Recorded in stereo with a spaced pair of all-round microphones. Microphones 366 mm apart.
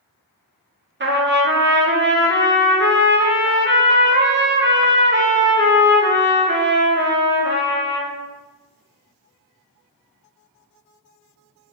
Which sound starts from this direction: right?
A trumpet, at 1.0 s.